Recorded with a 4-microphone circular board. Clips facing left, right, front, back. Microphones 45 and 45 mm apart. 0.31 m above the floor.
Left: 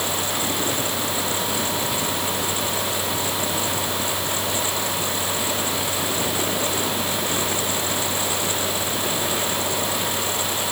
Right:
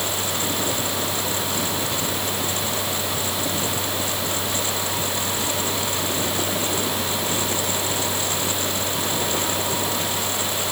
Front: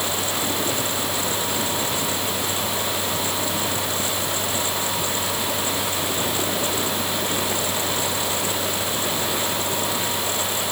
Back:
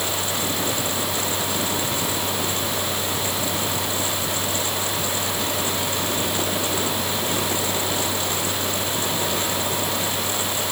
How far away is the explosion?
No explosion in this recording.